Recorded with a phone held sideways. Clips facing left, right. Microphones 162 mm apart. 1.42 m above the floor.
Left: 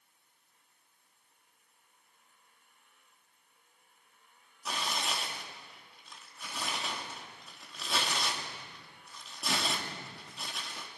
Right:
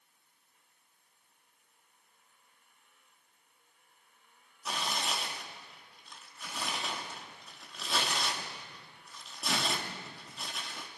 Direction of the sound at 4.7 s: Centre (ahead or behind).